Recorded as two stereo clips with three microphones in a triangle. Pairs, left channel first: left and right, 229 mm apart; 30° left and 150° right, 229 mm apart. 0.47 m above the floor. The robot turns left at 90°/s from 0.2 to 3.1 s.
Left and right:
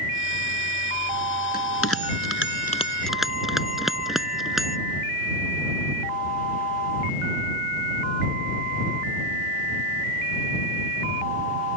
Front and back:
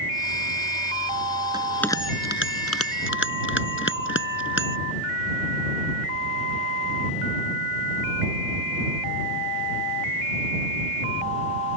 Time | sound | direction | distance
1.5 | a bell | 140° left | ?